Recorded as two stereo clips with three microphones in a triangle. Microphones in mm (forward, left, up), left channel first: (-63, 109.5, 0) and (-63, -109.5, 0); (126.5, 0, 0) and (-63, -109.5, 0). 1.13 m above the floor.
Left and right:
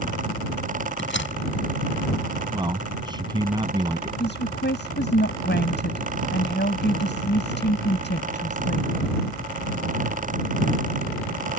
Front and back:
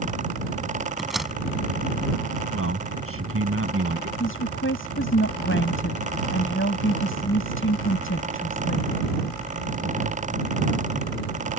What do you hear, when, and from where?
1.0 s a door slam: 120° left
2.5 s a man speaking: 160° right
4.2 s a woman speaking: 55° left